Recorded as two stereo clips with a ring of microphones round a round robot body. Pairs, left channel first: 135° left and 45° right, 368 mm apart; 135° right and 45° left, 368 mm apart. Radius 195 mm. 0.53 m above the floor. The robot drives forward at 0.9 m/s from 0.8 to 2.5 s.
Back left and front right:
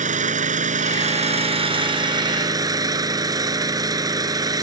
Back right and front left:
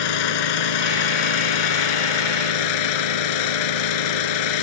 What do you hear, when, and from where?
0.0 s an engine running: 115° right; by 4.6 s 125° right